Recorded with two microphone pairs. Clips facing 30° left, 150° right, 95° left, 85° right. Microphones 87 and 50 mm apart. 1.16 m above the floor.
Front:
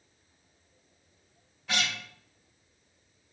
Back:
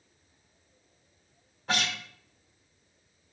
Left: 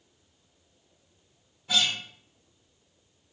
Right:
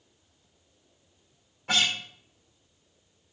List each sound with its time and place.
1.7 s a guitar: 105° right, 1.2 m